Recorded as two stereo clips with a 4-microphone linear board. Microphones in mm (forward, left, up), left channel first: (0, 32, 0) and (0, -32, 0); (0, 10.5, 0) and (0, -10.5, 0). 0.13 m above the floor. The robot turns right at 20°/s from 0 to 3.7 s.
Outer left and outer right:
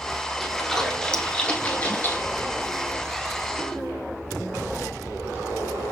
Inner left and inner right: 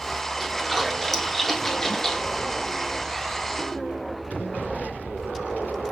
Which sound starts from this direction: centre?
A splash, at 0.4 s.